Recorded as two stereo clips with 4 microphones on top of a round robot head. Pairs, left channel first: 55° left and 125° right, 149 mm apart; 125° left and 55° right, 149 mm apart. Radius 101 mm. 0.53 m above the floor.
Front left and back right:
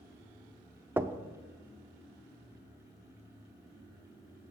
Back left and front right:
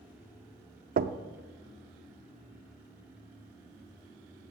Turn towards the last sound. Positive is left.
turn(degrees=-50)